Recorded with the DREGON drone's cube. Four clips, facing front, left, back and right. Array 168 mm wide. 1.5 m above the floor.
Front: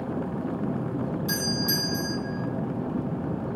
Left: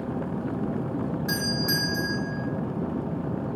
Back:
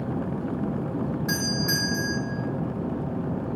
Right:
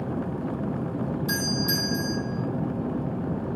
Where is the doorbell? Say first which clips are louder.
Even, back 1 dB; 135° left, 0.7 m.